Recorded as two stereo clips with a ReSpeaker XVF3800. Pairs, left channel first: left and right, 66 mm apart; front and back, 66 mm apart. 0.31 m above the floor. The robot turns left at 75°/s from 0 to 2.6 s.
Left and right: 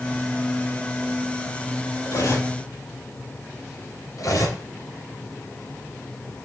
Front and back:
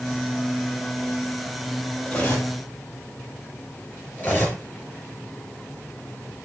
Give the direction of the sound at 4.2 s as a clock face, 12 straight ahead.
10 o'clock.